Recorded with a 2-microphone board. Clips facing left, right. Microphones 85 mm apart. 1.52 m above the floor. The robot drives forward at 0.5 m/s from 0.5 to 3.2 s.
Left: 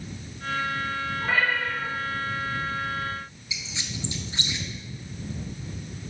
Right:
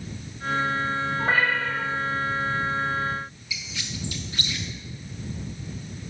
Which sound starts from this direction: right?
A cat meowing, at 1.2 s.